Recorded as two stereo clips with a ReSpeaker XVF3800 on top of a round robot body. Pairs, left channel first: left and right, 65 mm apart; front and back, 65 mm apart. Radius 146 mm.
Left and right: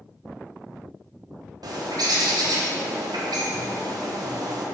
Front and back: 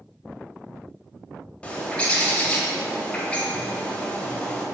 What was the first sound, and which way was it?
A bird, 75° right.